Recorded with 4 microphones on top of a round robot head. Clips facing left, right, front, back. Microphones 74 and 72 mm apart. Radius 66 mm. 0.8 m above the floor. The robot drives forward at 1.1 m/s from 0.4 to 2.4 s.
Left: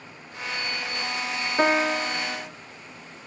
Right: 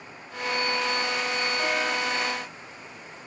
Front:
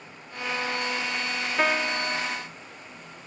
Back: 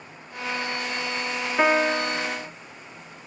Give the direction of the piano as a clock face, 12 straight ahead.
8 o'clock.